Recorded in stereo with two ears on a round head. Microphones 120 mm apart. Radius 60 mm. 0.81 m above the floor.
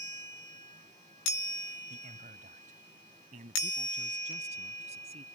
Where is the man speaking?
70° right (ahead or behind); by 5.2 s 50° right (ahead or behind).